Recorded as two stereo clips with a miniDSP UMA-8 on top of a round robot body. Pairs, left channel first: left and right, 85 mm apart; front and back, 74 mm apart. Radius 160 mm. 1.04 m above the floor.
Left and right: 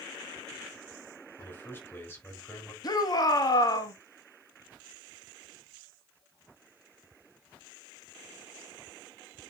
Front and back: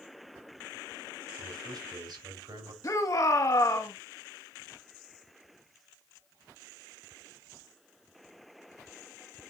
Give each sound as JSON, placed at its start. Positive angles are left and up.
{"t": 1.4, "sound": "a man speaking", "azimuth_deg": 160, "distance_m": 3.5}
{"t": 2.8, "sound": "a shout", "azimuth_deg": 45, "distance_m": 1.7}